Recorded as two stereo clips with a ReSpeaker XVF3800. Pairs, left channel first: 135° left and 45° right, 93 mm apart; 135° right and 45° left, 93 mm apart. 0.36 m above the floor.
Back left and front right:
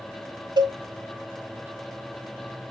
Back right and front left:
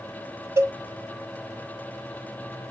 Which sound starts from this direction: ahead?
A cowbell, at 0.6 s.